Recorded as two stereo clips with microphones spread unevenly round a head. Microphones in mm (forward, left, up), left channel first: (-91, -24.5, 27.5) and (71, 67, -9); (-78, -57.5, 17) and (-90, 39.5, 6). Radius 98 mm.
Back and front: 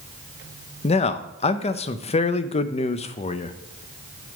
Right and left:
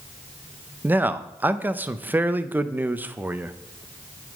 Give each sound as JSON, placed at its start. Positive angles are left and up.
{"t": 0.8, "sound": "a man speaking", "azimuth_deg": 155, "distance_m": 0.6}